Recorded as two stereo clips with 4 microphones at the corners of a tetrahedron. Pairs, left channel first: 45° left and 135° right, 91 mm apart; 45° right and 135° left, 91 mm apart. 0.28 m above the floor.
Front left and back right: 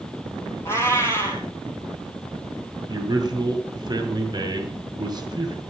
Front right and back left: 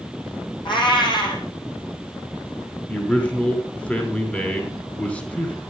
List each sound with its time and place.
0.7 s a cat meowing: 15° right, 3.5 m
2.9 s a man speaking: 115° right, 2.5 m